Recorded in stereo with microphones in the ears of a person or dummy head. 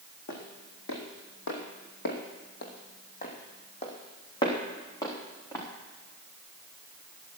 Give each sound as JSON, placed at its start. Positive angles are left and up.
{"t": 0.3, "sound": "footsteps", "side_deg": 65, "distance_m": 3.5}